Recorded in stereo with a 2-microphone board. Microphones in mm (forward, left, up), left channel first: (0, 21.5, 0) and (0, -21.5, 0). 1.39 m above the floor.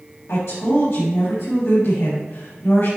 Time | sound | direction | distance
0.3 | a woman speaking | 75° left (ahead or behind) | 3 m